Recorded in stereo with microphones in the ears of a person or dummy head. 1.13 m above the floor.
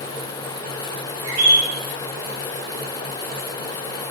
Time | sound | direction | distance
1.2 | a bird | 55° right (ahead or behind) | 1.2 m